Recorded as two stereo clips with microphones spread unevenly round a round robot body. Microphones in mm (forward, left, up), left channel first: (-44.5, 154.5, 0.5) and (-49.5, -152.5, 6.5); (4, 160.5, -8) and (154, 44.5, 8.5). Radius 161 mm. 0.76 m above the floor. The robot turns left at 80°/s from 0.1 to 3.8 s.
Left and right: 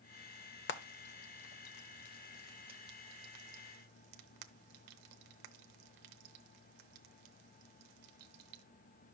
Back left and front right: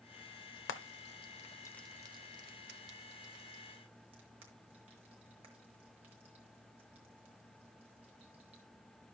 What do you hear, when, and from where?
0.7 s frying: 145° left, 0.9 m; by 8.6 s 105° right, 0.9 m